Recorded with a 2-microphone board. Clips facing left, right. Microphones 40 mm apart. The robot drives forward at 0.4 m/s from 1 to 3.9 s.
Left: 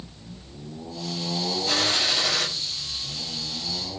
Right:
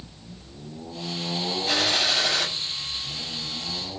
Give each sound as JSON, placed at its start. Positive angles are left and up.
{"t": 1.7, "sound": "a gunshot", "side_deg": -10, "distance_m": 7.0}